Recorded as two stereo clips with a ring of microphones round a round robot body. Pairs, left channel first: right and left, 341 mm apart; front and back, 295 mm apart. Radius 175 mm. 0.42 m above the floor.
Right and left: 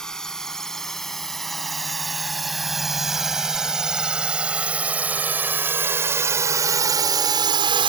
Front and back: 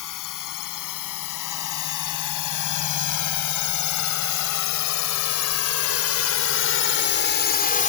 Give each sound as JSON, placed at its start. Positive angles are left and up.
{"t": 0.0, "sound": "a drone", "azimuth_deg": 0}